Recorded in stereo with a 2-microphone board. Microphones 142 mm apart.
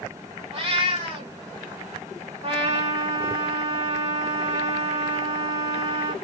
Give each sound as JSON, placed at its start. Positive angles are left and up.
{"t": 0.5, "sound": "a cat meowing", "side_deg": -40, "distance_m": 2.0}
{"t": 2.4, "sound": "a trumpet", "side_deg": -40, "distance_m": 2.0}